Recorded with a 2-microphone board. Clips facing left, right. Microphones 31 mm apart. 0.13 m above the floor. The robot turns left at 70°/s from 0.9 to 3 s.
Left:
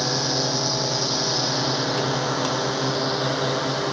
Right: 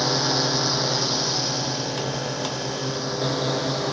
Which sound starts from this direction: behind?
A drone, at 0.0 s.